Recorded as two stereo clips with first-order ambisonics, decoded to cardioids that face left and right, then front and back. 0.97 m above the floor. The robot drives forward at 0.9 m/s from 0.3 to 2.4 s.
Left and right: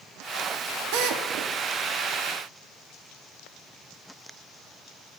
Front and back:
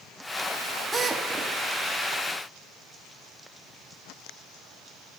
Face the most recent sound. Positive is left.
turn(degrees=-130)